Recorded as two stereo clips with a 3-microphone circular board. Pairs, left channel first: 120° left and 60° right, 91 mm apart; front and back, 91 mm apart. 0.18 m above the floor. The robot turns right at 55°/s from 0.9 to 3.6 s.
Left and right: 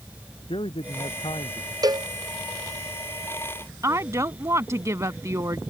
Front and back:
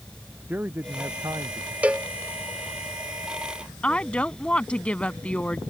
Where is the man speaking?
110° left; by 1.7 s 155° left.